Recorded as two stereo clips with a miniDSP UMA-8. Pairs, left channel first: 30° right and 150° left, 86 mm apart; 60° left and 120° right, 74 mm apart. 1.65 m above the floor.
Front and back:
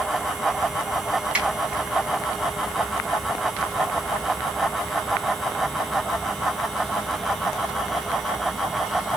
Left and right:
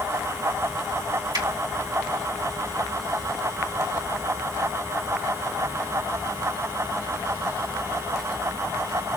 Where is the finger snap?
130° right, 3 m.